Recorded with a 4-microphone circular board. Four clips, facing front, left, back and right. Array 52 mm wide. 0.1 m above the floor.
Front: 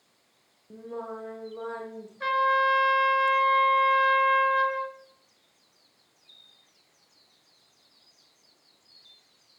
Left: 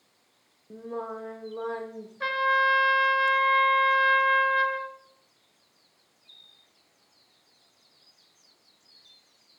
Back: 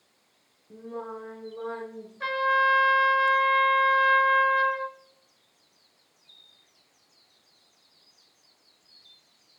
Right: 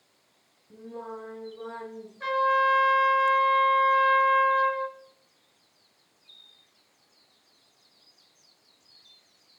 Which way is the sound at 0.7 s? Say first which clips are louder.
Left 4 dB, even; 75° left.